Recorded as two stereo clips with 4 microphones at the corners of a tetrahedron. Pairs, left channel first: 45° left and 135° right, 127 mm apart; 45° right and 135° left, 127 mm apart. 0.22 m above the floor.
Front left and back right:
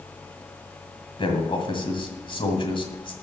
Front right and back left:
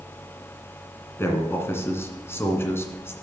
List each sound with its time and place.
1.2 s a man speaking: 20° left, 2 m